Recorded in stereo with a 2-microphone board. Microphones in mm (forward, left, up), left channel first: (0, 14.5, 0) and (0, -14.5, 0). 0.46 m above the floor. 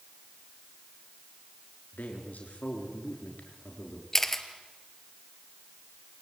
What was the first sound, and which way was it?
A man speaking, 70° left (ahead or behind).